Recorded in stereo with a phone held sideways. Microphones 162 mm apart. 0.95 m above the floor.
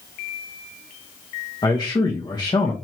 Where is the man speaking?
25° left (ahead or behind), 0.9 m.